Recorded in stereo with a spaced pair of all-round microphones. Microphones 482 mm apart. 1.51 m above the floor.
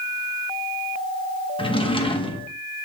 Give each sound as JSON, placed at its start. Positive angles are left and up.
{"t": 1.6, "sound": "a drawer", "side_deg": 10, "distance_m": 0.9}